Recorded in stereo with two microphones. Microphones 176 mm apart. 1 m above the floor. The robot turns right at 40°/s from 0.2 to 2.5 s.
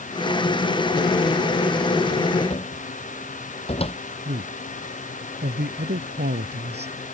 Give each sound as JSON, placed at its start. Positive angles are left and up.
{"t": 2.5, "sound": "a cupboard door", "side_deg": 35}
{"t": 4.2, "sound": "a man speaking", "side_deg": -70}